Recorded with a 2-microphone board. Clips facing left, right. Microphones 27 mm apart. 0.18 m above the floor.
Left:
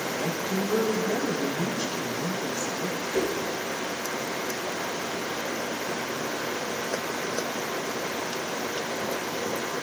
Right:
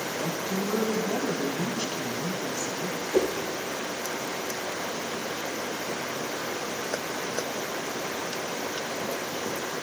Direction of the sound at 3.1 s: 70° right (ahead or behind).